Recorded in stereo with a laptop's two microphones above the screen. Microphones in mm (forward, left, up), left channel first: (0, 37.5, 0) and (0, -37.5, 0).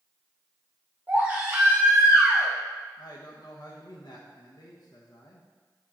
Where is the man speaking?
70° left (ahead or behind), 0.8 m.